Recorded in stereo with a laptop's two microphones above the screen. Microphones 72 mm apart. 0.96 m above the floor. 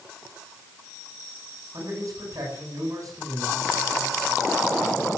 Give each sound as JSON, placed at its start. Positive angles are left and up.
{"t": 1.7, "sound": "a man speaking", "side_deg": -50, "distance_m": 8.5}